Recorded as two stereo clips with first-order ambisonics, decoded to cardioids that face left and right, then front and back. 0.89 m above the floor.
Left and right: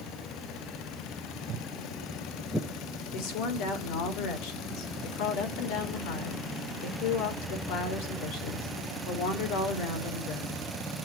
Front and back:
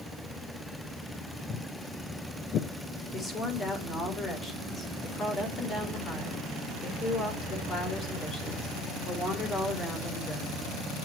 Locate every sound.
1.5 s footsteps: 60° right, 1.9 m; by 2.7 s 25° left, 1.0 m
3.1 s a woman speaking: 70° left, 3.5 m